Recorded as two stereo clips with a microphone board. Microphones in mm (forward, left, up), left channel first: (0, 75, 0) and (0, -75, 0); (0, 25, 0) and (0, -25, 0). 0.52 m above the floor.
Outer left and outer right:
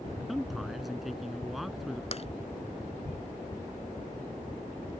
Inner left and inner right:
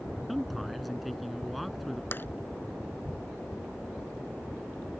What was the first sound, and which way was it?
A man speaking, centre (ahead or behind).